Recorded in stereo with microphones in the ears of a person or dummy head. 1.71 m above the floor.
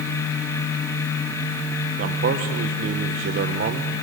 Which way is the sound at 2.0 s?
50° right (ahead or behind).